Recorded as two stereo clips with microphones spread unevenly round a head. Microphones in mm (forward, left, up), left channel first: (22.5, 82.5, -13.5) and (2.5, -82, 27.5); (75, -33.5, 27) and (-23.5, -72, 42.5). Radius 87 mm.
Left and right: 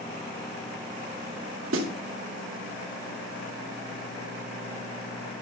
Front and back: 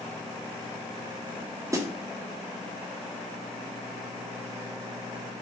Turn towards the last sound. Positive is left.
turn(degrees=-100)